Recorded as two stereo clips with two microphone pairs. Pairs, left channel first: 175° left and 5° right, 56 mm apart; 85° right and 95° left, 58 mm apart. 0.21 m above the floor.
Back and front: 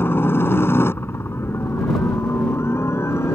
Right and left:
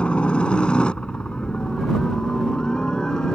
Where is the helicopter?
150° right; by 3.4 s 160° right.